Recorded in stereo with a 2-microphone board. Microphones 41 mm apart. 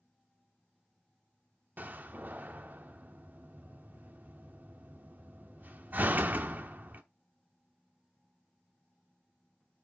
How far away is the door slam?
About 0.8 m.